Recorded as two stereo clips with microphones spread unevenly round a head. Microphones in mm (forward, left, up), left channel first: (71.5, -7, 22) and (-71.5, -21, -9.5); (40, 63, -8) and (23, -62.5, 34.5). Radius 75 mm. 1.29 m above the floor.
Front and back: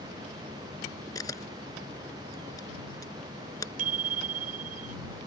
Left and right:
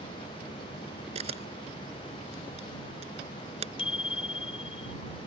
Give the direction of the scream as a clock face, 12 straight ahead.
I don't hear a scream.